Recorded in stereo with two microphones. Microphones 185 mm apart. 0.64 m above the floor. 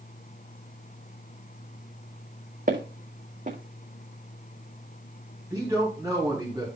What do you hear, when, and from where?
2.7 s footsteps: 45° right (ahead or behind), 1.8 m
5.5 s a man speaking: 15° right (ahead or behind), 4.5 m